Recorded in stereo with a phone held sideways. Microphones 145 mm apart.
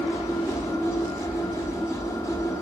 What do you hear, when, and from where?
0.0 s a machine running: 20° left (ahead or behind), 1.1 m